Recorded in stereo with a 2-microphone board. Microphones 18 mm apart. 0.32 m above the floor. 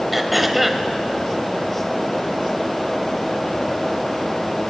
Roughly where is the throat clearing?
Centre.